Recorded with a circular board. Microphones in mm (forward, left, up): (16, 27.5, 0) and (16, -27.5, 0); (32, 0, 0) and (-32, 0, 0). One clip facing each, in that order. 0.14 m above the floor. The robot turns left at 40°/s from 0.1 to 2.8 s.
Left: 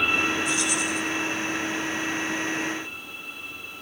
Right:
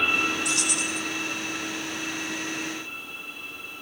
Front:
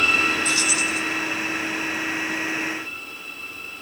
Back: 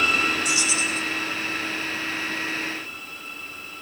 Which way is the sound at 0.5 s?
105° right.